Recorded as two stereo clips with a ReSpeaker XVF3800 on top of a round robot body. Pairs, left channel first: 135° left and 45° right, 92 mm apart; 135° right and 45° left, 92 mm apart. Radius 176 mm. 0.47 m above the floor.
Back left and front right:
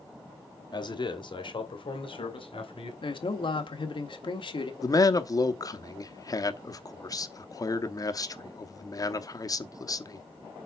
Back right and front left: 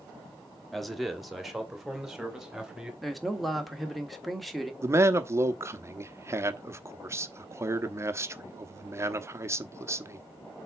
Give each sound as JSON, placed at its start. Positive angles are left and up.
{"t": 0.7, "sound": "a man speaking", "azimuth_deg": 135, "distance_m": 1.9}
{"t": 3.0, "sound": "a man speaking", "azimuth_deg": 135, "distance_m": 1.6}
{"t": 4.8, "sound": "a man speaking", "azimuth_deg": 100, "distance_m": 1.2}